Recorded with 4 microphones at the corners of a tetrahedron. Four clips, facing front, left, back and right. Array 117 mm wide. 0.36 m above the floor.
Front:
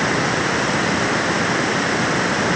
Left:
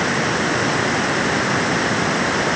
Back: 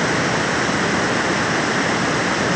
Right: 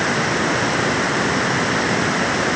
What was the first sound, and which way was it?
Only background noise.